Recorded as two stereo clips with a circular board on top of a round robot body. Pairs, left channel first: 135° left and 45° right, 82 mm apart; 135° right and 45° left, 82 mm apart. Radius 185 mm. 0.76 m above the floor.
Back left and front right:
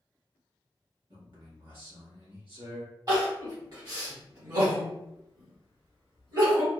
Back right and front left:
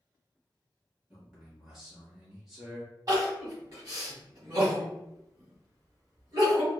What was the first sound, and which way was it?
A man speaking, 40° right.